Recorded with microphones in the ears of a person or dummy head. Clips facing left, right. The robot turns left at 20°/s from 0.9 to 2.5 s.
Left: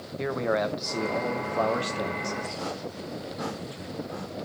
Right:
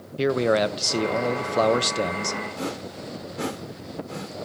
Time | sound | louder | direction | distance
0.2 | a man speaking | right 6 dB | 50° right | 0.9 m
2.6 | a whoosh | right 2 dB | 40° right (ahead or behind) | 1.6 m